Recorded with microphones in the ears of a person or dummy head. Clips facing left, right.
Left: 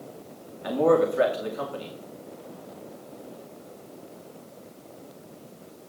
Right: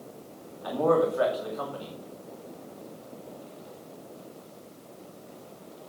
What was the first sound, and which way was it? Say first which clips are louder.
A man speaking: left 3 dB; 35° left (ahead or behind).